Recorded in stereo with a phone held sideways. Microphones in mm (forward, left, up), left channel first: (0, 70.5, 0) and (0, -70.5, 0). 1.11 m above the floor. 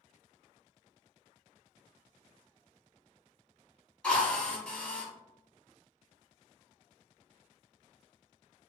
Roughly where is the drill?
Centre.